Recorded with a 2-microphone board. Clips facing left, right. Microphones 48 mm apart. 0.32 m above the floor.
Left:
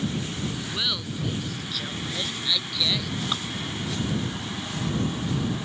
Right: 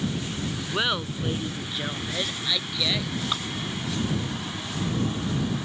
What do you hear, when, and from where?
0.7 s laughter: 40° right (ahead or behind); by 3.1 s 20° right (ahead or behind)
3.3 s dripping: 5° right (ahead or behind)